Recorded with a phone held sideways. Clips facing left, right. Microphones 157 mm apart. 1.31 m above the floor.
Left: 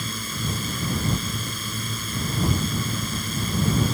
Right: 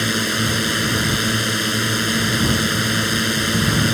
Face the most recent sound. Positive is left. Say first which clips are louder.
# right 11 dB
turn(degrees=-80)